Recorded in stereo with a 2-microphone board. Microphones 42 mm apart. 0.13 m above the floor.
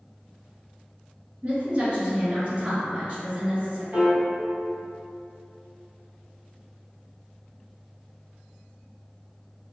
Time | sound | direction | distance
1.4 | a woman speaking | 35° right (ahead or behind) | 1.2 m
3.9 | a piano | 40° right (ahead or behind) | 1.5 m